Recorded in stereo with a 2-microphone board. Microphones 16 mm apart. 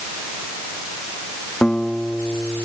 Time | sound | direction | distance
1.6 | a guitar | 85° left | ?